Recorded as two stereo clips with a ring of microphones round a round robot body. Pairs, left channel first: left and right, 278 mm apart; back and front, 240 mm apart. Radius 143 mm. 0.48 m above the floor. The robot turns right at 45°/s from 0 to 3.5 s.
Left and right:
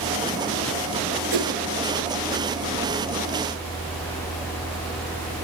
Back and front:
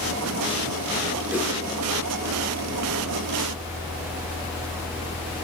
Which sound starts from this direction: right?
A whoosh, at 1.3 s.